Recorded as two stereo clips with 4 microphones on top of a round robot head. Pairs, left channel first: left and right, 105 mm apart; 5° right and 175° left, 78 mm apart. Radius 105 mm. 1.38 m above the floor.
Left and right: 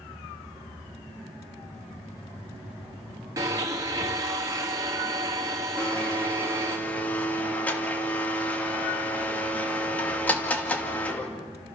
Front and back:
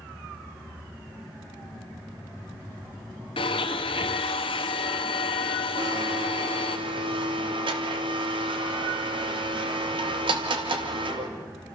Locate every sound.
3.4 s a blender: 25° right, 1.3 m
5.8 s a blender: 165° left, 2.5 m